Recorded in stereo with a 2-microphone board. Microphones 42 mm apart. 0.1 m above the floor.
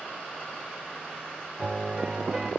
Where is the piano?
15° right (ahead or behind), 4 m.